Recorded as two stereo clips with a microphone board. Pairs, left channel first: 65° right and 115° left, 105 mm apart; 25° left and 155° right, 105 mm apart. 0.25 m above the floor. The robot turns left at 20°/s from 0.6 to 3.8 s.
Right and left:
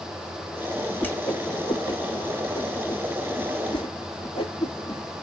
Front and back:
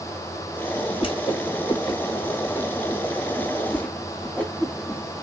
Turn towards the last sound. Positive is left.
turn(degrees=-50)